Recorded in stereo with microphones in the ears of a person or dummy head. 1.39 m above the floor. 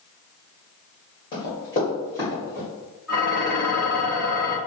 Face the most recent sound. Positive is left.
turn(degrees=-5)  # may be behind; listen again after turning